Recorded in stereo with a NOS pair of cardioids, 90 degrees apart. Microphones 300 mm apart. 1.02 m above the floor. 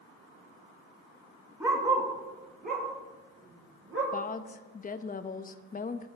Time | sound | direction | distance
1.6 | a dog barking | 5° right | 2.5 m
4.1 | a woman speaking | 30° left | 0.8 m